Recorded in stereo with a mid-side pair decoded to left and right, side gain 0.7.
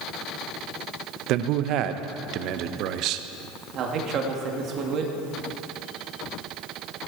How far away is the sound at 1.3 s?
About 0.8 m.